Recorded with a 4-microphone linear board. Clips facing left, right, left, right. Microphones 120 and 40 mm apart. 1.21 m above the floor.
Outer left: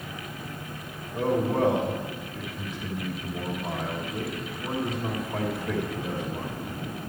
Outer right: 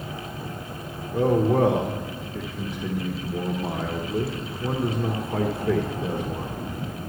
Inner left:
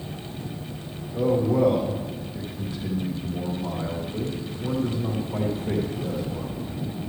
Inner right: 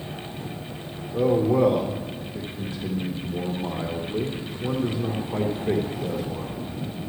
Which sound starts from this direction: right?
A man speaking, at 1.1 s.